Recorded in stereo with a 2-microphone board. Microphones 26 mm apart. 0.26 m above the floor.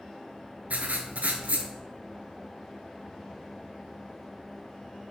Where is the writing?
80° right, 0.5 m.